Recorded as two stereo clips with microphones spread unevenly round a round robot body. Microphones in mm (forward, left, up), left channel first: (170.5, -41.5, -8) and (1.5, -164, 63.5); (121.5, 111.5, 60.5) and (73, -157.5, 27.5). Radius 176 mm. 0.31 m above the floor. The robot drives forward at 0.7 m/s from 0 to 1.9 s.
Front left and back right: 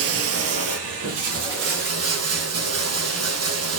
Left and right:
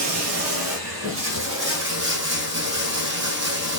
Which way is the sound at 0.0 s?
145° right.